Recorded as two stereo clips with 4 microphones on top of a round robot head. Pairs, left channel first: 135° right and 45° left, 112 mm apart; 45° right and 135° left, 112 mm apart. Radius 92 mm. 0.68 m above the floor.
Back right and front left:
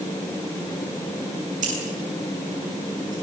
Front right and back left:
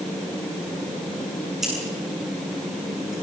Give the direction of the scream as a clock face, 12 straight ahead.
No scream in this recording.